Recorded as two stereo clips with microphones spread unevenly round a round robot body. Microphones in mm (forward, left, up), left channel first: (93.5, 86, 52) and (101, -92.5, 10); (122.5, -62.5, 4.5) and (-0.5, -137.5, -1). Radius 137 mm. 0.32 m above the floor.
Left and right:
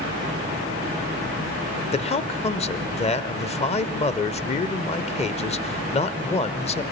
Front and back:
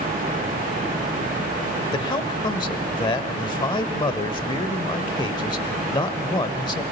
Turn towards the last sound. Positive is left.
turn(degrees=50)